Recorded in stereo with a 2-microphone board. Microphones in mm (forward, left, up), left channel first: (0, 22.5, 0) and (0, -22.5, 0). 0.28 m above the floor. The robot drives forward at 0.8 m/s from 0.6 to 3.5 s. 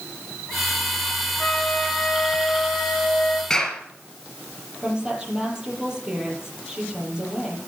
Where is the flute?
15° left (ahead or behind), 3 m; by 3.4 s 10° left (ahead or behind), 4 m.